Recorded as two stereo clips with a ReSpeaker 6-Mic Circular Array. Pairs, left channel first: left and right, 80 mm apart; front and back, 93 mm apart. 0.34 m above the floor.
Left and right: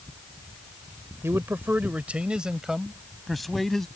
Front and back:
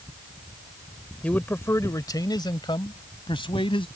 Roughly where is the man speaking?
Ahead right.